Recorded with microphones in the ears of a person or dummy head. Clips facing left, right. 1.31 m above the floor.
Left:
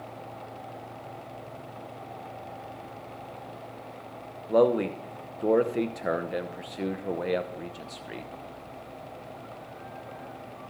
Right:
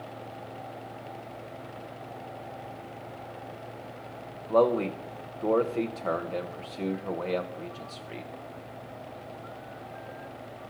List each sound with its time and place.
4.5 s a man speaking: 10° left (ahead or behind), 0.7 m